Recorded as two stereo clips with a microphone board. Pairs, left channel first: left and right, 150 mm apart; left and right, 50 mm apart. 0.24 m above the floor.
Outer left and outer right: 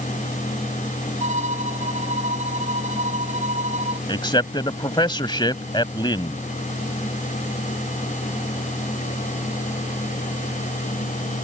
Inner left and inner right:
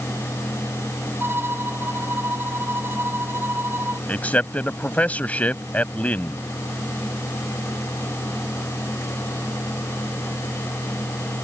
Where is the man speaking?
30° left (ahead or behind).